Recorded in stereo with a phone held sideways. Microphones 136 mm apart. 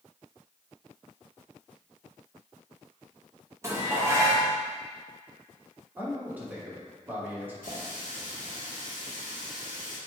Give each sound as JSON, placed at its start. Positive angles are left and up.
{"t": 3.6, "sound": "dishes clattering", "side_deg": -20, "distance_m": 1.0}
{"t": 6.0, "sound": "a man speaking", "side_deg": -15, "distance_m": 1.4}
{"t": 7.6, "sound": "a running tap", "side_deg": 70, "distance_m": 1.9}